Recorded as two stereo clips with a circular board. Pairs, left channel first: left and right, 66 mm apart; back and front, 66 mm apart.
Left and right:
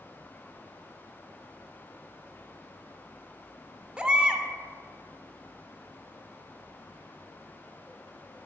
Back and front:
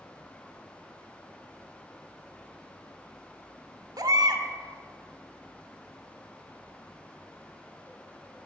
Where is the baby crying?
15° right, 0.6 m.